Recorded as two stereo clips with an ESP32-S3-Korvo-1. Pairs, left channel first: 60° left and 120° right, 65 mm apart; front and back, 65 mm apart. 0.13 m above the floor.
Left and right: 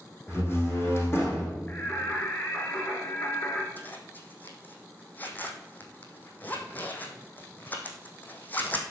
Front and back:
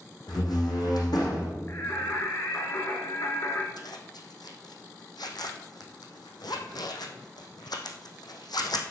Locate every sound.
0.3 s a door slam: 5° left, 5 m
1.7 s singing: 15° left, 2 m
3.8 s a zipper: 5° right, 1.8 m